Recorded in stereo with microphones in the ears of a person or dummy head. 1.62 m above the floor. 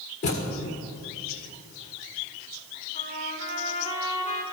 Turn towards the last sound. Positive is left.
turn(degrees=30)  # may be behind; listen again after turning